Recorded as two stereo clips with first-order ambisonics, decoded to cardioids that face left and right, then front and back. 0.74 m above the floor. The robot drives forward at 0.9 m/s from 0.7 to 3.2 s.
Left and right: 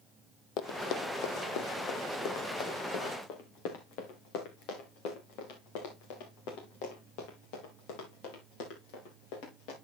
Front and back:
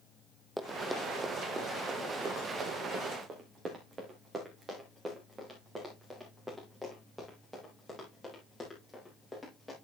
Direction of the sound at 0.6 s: 95° left.